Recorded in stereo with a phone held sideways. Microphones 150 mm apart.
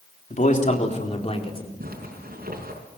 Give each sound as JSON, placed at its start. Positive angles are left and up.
{"t": 0.3, "sound": "a man speaking", "side_deg": 55, "distance_m": 3.5}
{"t": 1.8, "sound": "a zipper", "side_deg": -75, "distance_m": 5.0}